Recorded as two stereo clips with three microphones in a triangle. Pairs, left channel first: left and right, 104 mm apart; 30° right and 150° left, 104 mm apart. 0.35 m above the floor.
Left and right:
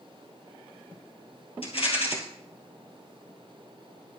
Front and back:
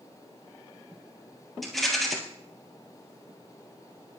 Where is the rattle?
60° left, 3.5 m.